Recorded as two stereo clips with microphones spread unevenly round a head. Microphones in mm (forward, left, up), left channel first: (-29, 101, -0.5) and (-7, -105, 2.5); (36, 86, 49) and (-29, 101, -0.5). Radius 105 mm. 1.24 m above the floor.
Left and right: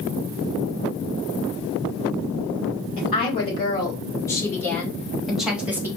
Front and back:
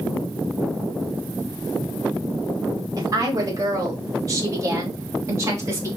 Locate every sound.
3.0 s a woman speaking: 160° left, 3 m; by 5.9 s 165° right, 1.8 m